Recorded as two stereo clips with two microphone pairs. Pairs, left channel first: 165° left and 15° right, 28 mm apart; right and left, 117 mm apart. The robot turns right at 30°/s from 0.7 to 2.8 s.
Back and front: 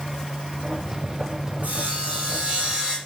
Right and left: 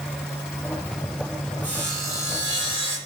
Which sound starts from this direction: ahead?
Sawing, at 1.6 s.